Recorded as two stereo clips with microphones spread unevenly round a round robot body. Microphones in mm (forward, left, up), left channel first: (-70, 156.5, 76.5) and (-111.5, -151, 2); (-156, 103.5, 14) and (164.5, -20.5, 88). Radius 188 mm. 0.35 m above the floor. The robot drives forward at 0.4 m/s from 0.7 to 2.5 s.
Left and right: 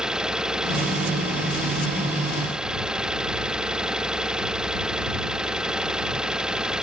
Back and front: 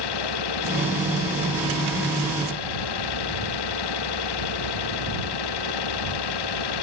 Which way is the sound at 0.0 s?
175° left.